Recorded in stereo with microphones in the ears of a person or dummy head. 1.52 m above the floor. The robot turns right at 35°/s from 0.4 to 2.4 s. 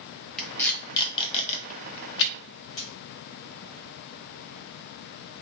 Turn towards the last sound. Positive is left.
turn(degrees=25)  # may be behind; listen again after turning